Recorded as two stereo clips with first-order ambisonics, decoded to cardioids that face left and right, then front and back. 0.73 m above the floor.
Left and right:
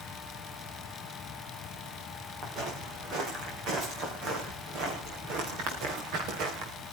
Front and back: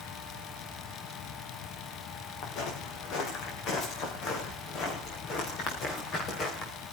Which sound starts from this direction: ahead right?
Footsteps, at 2.4 s.